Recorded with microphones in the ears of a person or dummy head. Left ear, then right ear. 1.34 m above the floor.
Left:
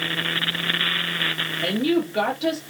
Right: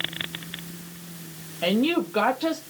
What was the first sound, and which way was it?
A woman speaking, 30° right (ahead or behind).